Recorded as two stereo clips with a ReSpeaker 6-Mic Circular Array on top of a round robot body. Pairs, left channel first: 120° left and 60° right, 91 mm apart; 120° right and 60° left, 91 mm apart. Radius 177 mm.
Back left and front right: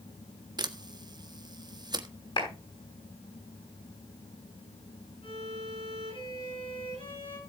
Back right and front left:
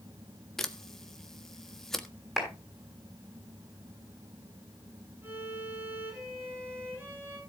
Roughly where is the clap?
Behind left.